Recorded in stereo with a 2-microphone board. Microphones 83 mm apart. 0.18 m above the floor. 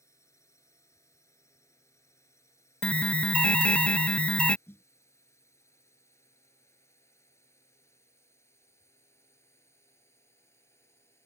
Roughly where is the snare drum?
Left.